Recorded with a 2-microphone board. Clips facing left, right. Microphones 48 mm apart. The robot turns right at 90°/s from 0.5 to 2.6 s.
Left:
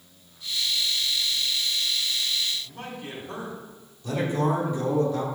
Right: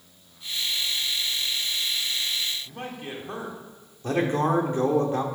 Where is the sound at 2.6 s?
30° right (ahead or behind), 2 m.